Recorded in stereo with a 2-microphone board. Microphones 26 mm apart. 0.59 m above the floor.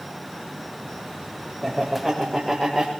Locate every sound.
1.6 s laughter: 5° right (ahead or behind), 3.5 m; by 2.9 s 10° right (ahead or behind), 2.5 m